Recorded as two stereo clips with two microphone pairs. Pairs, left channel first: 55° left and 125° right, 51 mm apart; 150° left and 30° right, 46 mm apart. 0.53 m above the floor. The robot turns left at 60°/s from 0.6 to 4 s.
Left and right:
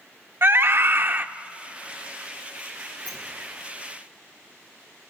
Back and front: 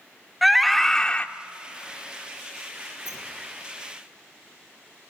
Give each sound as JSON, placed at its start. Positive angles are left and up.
{"t": 0.4, "sound": "a scream", "azimuth_deg": -125, "distance_m": 1.0}
{"t": 3.0, "sound": "a sliding door", "azimuth_deg": 145, "distance_m": 9.0}